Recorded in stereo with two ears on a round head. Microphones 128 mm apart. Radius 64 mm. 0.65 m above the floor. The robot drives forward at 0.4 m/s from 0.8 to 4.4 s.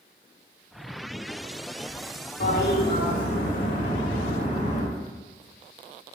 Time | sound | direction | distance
2.4 | a toilet flushing | 65° left (ahead or behind) | 2.5 m